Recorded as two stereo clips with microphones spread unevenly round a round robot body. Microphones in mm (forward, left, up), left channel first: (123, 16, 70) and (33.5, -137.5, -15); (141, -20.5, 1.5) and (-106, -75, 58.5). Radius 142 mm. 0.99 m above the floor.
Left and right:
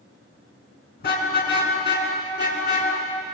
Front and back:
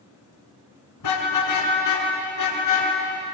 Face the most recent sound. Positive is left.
turn(degrees=30)